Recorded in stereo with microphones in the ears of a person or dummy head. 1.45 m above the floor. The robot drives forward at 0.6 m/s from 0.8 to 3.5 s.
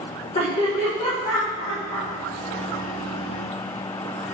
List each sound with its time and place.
0.3 s laughter: 30° left (ahead or behind), 2 m; by 2.1 s 20° left (ahead or behind), 2.5 m